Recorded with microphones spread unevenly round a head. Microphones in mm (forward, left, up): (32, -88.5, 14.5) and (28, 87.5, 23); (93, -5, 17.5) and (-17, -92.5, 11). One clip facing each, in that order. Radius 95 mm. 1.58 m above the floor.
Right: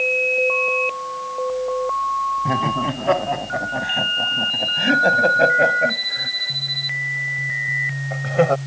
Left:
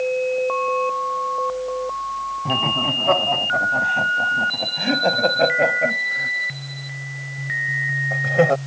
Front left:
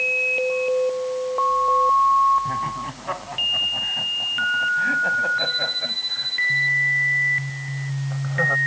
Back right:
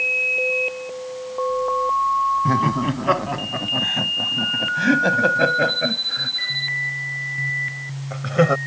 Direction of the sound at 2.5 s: 170° right.